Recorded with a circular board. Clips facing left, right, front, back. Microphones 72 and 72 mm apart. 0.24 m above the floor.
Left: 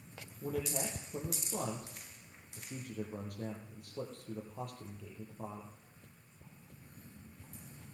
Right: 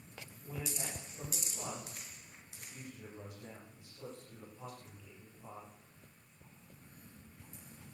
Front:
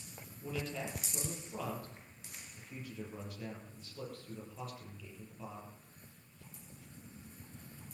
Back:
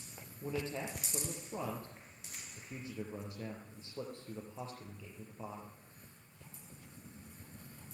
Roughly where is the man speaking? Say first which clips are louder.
Left 7 dB, back 1 dB; behind left.